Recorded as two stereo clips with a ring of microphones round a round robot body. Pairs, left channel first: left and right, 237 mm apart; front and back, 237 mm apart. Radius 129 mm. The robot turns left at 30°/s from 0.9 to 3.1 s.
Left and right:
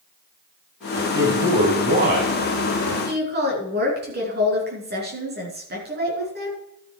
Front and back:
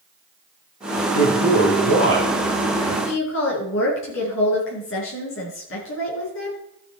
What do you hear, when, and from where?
1.0 s a man speaking: 10° right, 4 m; by 3.0 s 70° right, 4 m
3.0 s a woman speaking: 45° right, 5 m